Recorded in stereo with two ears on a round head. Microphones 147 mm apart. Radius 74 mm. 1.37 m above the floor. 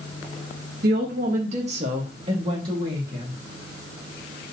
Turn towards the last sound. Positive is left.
turn(degrees=-25)  # may be behind; listen again after turning